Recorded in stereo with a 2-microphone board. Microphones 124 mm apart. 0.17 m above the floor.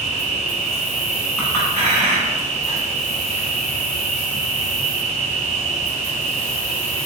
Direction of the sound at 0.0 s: 55° left (ahead or behind).